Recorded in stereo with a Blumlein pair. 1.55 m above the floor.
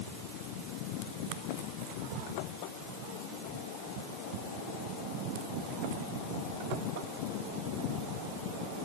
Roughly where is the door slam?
I don't hear a door slam.